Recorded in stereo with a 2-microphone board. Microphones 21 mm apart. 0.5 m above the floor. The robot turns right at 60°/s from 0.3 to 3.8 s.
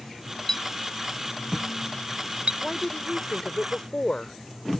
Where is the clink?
30° left (ahead or behind); by 2.5 s 75° right (ahead or behind).